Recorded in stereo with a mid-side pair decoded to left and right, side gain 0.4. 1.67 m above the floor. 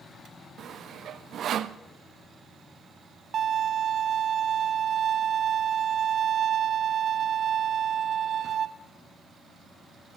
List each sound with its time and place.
0.6 s sawing: 70° right, 0.6 m
3.3 s a violin: 60° right, 1.0 m